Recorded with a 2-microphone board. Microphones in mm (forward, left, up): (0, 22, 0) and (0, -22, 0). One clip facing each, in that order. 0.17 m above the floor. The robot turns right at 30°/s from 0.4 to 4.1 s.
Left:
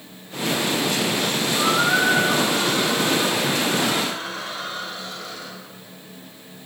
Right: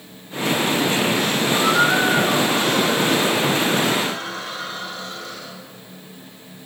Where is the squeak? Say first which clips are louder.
Right 2 dB; 120° right, 5 m; by 5.5 s 40° right, 5 m.